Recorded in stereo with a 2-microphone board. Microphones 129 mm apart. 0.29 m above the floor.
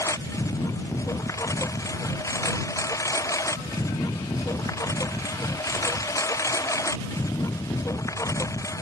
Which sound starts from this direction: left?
A lawn mower, at 0.0 s.